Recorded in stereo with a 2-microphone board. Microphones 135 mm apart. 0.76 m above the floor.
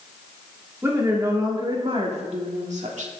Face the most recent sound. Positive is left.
turn(degrees=-65)  # may be behind; listen again after turning